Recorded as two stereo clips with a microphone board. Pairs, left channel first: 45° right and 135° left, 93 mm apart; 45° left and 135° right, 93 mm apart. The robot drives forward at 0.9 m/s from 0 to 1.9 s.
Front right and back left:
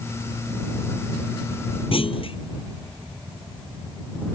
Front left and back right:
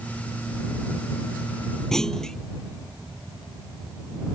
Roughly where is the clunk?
Ahead right.